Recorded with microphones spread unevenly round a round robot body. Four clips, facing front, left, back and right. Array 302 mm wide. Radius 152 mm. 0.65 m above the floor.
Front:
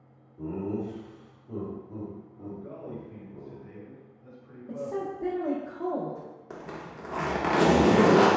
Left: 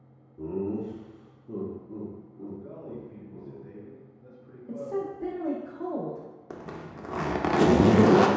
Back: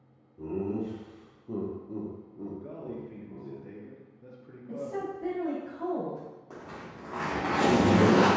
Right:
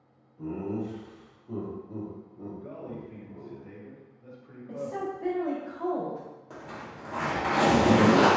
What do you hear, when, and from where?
0.4 s laughter: 85° left, 1.0 m; by 3.6 s 165° right, 1.5 m
2.6 s a man speaking: 160° left, 1.1 m
4.7 s a woman speaking: 55° left, 1.1 m
6.5 s a zipper: 60° left, 0.6 m